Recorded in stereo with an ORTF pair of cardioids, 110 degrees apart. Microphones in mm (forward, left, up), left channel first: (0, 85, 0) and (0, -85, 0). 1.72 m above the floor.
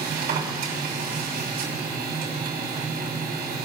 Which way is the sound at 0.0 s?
70° right.